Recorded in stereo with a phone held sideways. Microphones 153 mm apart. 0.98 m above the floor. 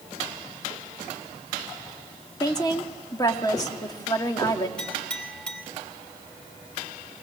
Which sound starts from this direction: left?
A woman speaking, at 2.4 s.